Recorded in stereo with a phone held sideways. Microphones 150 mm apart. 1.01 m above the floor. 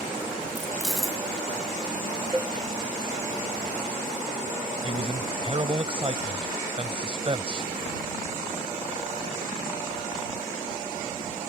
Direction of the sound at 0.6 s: Centre (ahead or behind).